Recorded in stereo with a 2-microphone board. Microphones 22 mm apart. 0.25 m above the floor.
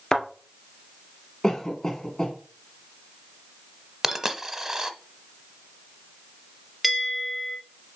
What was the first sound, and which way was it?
A thud, 30° left (ahead or behind).